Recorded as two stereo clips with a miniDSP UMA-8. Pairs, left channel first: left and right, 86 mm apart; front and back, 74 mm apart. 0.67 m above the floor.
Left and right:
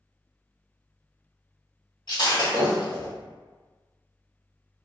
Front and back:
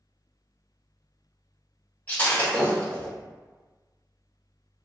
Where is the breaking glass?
65° left, 1.7 m.